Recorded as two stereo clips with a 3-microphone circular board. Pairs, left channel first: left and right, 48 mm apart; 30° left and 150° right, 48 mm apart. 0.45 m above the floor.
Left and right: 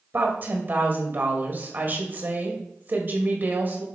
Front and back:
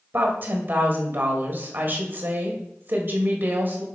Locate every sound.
0.1 s a woman speaking: 120° right, 2 m